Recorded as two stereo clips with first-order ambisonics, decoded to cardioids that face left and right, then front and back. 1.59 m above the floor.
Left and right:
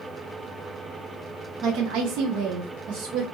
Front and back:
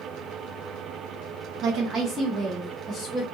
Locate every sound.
1.6 s a woman speaking: 140° right, 0.6 m; by 3.2 s 80° right, 1.1 m